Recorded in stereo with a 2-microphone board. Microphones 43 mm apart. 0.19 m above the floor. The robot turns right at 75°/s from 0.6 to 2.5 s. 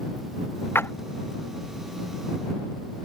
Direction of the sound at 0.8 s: 75° left (ahead or behind).